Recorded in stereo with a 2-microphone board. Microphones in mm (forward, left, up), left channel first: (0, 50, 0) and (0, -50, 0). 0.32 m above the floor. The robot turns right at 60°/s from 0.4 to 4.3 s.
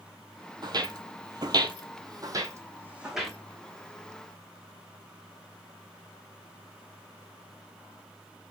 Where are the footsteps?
50° right (ahead or behind), 0.7 m; by 3.4 s 5° left (ahead or behind), 1.3 m.